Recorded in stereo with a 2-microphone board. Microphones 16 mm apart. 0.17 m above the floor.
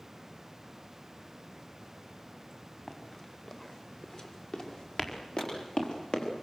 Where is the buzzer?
No buzzer in this recording.